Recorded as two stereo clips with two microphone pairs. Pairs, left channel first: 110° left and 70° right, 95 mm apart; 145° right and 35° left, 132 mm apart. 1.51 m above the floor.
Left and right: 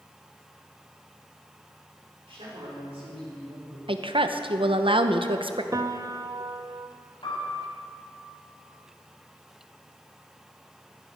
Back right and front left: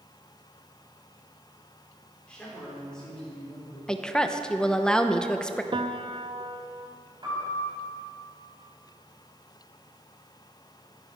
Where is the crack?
I don't hear a crack.